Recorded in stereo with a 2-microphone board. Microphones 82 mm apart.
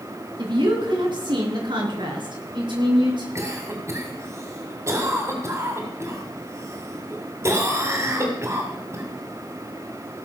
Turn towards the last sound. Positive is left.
turn(degrees=-35)  # may be behind; listen again after turning